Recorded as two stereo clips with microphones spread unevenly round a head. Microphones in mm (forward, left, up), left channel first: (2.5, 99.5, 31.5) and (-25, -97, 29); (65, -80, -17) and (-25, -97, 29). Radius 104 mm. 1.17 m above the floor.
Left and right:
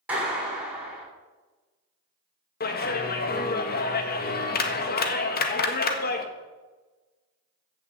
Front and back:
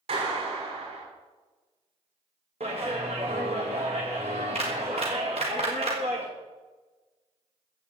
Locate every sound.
0.1 s a clap: straight behind, 8 m
2.6 s a clap: 125° left, 1.6 m